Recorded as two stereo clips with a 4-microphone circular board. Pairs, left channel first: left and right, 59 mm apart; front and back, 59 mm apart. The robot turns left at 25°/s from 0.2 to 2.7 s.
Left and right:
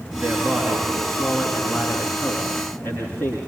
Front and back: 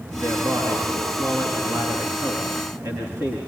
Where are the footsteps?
No footsteps in this recording.